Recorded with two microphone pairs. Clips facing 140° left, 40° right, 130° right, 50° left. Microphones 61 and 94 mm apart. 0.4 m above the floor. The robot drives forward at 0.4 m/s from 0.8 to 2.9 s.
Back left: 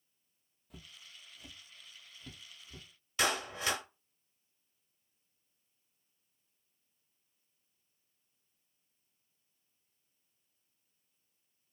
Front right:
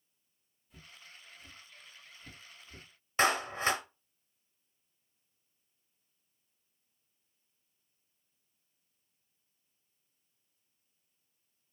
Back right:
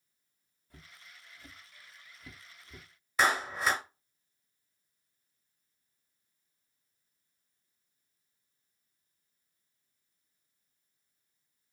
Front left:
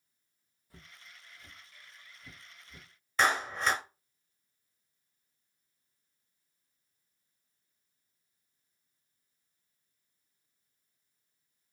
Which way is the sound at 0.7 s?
135° left.